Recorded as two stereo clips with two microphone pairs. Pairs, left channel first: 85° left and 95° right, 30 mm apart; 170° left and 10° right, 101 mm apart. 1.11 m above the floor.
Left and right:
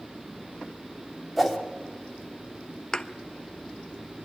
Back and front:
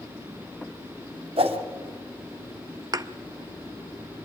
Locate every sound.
1.4 s a whoosh: straight ahead, 2 m
2.9 s a thud: 30° left, 0.5 m